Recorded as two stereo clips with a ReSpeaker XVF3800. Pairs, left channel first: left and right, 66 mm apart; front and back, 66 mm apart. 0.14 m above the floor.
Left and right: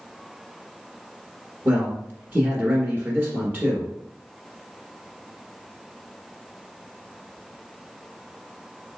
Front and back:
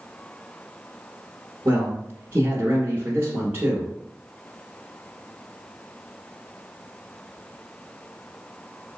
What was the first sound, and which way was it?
A man speaking, 135° right.